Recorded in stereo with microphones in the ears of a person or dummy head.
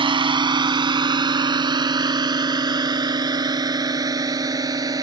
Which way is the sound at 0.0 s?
25° right (ahead or behind).